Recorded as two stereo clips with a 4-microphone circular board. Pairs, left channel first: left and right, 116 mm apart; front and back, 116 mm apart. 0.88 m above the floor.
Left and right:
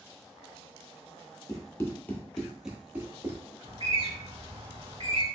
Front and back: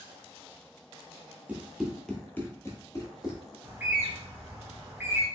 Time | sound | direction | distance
1.5 | running footsteps | 110° left | 1.0 m
3.6 | a bird | 110° right | 1.0 m